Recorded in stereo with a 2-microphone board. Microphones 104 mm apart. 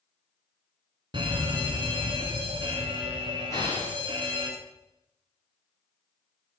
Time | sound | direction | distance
1.1 | an alarm | 50° right (ahead or behind) | 2 m
3.5 | an explosion | 30° left (ahead or behind) | 9 m